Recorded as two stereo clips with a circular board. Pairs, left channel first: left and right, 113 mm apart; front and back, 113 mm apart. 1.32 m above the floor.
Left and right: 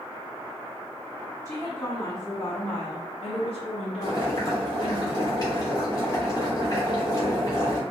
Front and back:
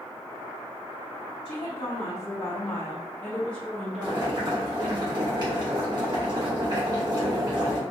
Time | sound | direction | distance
1.4 | a woman speaking | 25° left | 1.4 m
4.0 | boiling | 135° left | 1.5 m